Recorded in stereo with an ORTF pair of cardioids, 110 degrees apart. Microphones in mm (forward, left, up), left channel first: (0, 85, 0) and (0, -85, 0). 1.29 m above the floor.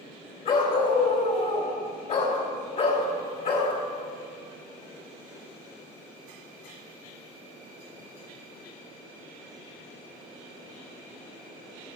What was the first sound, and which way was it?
A dog barking, 60° left.